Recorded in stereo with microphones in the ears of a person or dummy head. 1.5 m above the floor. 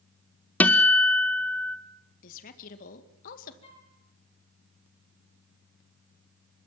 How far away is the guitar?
About 1.0 m.